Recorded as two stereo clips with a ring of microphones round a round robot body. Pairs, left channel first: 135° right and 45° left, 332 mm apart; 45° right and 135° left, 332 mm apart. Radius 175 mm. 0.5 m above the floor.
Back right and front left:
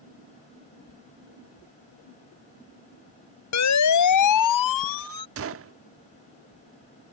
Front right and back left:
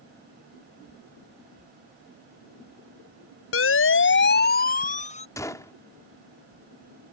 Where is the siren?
95° right; by 5.3 s 115° right.